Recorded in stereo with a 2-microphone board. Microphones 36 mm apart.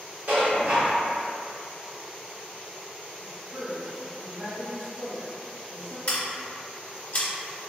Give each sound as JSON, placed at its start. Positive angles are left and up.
{"t": 0.3, "sound": "dishes clattering", "side_deg": -50, "distance_m": 1.5}
{"t": 3.2, "sound": "a woman speaking", "side_deg": -70, "distance_m": 1.1}
{"t": 6.1, "sound": "scissors", "side_deg": 45, "distance_m": 1.1}